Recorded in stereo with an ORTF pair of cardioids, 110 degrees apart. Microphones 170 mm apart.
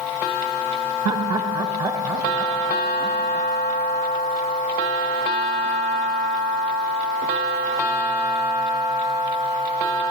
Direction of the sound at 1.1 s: 25° right.